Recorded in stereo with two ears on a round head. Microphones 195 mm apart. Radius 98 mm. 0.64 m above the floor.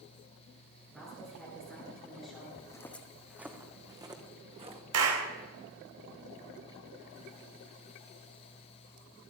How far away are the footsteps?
About 1.1 m.